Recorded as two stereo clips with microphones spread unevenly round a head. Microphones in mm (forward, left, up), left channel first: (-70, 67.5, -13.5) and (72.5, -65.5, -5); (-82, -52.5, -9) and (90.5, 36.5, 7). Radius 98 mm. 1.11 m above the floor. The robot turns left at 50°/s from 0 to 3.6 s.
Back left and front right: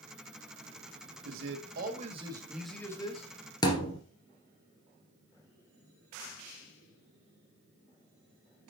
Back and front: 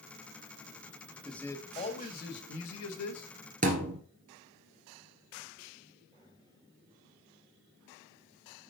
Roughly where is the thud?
Left.